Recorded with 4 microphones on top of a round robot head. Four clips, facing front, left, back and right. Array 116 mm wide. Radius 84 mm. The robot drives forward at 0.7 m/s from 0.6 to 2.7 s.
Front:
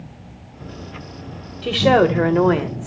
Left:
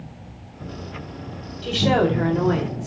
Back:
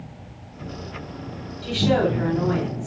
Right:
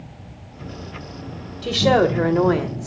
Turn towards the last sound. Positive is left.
turn(degrees=-25)